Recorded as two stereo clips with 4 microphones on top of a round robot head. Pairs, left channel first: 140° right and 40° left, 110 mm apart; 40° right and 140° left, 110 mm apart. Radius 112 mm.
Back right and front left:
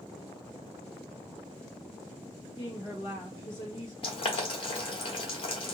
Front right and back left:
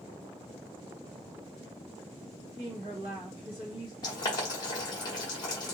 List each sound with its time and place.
2.6 s a woman speaking: straight behind, 1.3 m
4.0 s boiling: 95° right, 1.0 m